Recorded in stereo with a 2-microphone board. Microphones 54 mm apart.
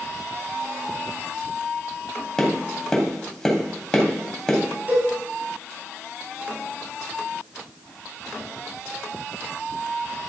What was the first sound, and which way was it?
Tapping, 10° left (ahead or behind).